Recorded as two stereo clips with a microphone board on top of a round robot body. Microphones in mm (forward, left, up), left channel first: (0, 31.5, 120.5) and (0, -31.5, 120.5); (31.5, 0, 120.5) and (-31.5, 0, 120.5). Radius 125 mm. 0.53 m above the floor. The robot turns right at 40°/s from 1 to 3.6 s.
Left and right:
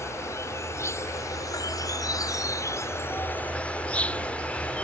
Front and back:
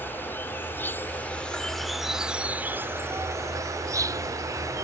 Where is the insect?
55° left; by 4.8 s 160° left.